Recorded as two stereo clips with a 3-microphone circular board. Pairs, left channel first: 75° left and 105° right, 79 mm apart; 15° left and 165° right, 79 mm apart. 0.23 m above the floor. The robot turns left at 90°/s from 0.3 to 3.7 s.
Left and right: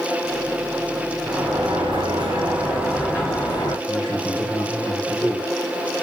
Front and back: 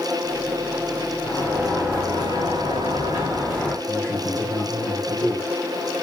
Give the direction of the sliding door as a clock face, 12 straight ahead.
2 o'clock.